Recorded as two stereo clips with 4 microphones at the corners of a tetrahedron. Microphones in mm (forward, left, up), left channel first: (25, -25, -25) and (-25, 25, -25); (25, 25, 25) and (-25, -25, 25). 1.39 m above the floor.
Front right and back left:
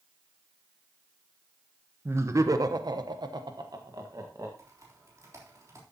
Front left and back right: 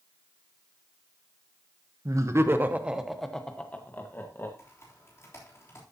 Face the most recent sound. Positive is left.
turn(degrees=90)